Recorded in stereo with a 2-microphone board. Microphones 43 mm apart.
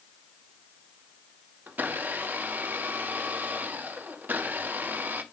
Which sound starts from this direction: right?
A blender, at 1.7 s.